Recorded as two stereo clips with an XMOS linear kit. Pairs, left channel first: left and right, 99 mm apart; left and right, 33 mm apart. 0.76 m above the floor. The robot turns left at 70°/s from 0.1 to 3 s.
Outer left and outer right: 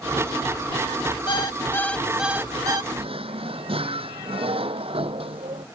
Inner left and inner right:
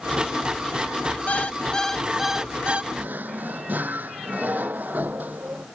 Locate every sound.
1.3 s an alarm clock: 60° left; by 2.8 s 50° right
2.9 s a drawer: 85° right; by 5.7 s 90° right